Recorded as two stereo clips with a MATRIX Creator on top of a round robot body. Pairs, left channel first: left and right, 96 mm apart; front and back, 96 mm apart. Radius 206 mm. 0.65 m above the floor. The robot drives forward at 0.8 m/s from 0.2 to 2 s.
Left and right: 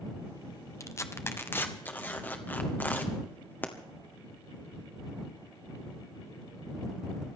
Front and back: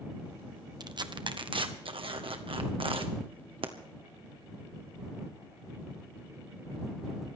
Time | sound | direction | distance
0.8 | tearing paper | 145° left | 1.3 m